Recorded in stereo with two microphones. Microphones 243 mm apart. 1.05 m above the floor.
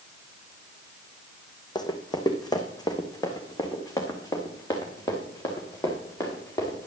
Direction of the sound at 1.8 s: 15° left (ahead or behind).